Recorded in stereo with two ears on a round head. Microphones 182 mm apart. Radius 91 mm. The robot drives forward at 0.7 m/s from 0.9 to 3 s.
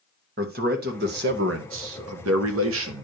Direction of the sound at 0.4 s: 50° right (ahead or behind).